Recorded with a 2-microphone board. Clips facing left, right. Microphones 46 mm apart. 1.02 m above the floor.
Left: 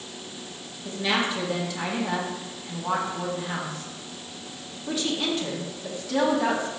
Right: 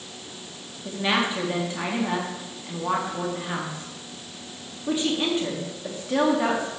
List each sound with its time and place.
0.8 s a woman speaking: 25° right (ahead or behind), 2 m